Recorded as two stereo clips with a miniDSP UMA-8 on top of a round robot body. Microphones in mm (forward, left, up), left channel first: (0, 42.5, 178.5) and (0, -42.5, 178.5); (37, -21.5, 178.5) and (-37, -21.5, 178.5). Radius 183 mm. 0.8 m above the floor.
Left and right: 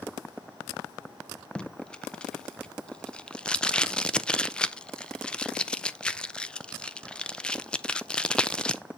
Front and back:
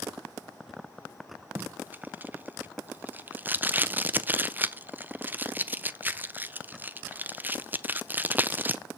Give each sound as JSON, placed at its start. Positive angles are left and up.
{"t": 1.6, "sound": "tape being pulled", "azimuth_deg": 155, "distance_m": 0.9}